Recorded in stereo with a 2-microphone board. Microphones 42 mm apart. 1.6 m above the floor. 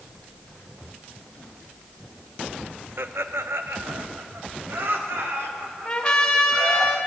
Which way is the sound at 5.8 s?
30° left (ahead or behind).